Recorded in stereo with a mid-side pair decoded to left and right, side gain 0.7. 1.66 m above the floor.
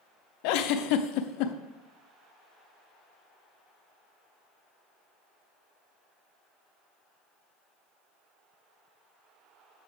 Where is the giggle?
65° left, 0.5 m.